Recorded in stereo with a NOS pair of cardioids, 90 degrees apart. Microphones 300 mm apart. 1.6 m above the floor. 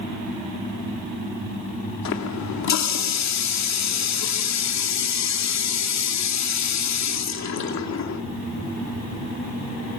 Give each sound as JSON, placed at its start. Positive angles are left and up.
{"t": 2.0, "sound": "a running tap", "azimuth_deg": 60, "distance_m": 2.5}